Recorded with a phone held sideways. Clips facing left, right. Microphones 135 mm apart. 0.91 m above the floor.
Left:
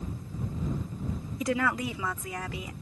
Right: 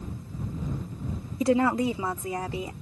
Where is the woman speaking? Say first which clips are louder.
Right 6 dB; 30° right (ahead or behind).